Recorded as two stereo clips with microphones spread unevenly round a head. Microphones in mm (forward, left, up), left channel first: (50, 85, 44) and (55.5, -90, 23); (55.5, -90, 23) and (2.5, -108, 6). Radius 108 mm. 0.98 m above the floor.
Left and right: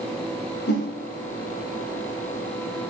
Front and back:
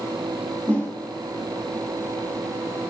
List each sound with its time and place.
0.7 s a whoosh: 140° left, 2.5 m